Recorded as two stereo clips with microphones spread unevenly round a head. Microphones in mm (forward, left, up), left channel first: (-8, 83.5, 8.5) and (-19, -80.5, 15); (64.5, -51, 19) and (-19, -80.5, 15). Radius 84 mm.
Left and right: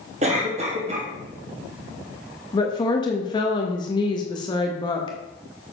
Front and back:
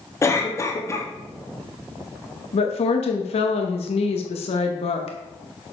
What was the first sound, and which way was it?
A cough, 40° right.